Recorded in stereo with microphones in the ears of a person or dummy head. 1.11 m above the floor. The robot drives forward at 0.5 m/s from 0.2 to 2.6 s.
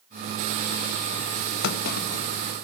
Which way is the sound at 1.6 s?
65° left (ahead or behind).